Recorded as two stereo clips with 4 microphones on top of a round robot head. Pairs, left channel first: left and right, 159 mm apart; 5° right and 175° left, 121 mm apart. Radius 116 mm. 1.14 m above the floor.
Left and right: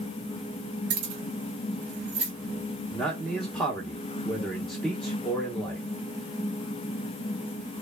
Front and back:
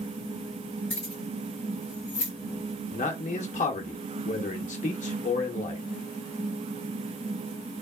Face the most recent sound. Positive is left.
turn(degrees=5)